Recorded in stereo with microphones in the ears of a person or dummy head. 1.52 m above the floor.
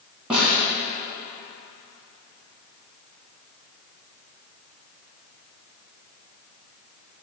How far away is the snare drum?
About 2 m.